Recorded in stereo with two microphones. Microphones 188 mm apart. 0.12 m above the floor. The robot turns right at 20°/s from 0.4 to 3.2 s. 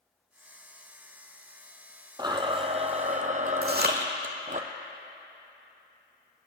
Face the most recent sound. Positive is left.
turn(degrees=-60)  # may be behind; listen again after turning